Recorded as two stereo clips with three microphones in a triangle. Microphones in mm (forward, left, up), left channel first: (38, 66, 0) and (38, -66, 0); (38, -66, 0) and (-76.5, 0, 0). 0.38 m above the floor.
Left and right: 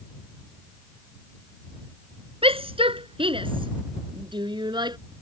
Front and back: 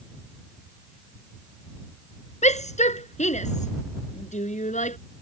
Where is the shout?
50° right; by 5.0 s 35° right.